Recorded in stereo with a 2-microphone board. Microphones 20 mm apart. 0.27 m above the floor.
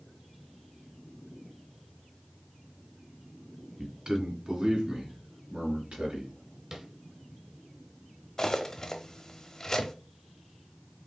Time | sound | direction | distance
3.8 | a man speaking | 25° right (ahead or behind) | 1.7 m
6.7 | tapping | 20° right (ahead or behind) | 1.4 m
8.4 | cutlery clinking | 25° left (ahead or behind) | 0.7 m